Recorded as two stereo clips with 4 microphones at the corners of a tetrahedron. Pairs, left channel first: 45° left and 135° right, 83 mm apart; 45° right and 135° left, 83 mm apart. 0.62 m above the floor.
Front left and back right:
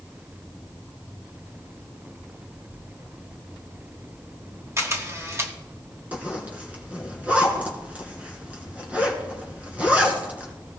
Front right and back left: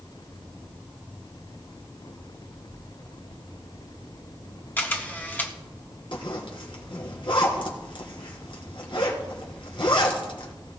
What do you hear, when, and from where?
4.8 s a camera shutter: 100° right, 1.5 m
6.1 s a zipper: 60° right, 3 m